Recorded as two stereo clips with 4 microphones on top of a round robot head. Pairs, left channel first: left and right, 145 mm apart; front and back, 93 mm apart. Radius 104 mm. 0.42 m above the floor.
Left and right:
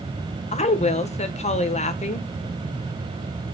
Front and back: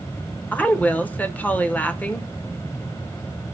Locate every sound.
0.5 s a woman speaking: 70° left, 1.4 m